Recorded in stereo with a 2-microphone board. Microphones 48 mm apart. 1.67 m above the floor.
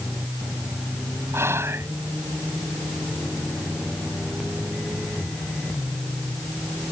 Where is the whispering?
70° right (ahead or behind).